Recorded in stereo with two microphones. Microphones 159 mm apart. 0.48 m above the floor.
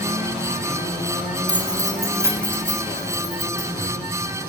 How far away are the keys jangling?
About 1.9 m.